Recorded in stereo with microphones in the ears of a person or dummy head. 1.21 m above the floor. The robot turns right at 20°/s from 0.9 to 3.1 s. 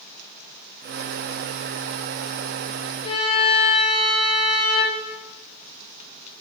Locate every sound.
3.0 s a violin: 45° left (ahead or behind), 3.5 m